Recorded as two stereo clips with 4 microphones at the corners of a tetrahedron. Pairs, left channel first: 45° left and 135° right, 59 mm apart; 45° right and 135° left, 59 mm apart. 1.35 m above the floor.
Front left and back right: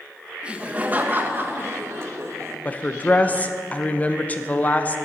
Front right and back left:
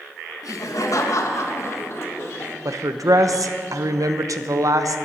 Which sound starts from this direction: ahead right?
Laughter, at 0.4 s.